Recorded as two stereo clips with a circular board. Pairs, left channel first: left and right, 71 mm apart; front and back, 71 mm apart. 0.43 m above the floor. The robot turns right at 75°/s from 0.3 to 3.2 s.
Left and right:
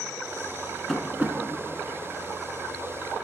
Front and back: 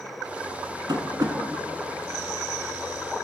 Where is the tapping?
175° left, 0.8 m; by 1.4 s 150° right, 0.8 m.